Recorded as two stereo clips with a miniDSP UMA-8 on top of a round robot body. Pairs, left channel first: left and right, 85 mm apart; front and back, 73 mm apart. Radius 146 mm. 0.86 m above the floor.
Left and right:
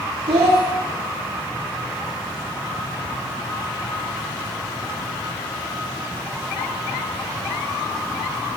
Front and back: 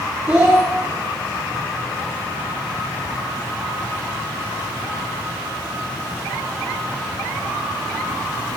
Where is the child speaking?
110° right, 1.1 m.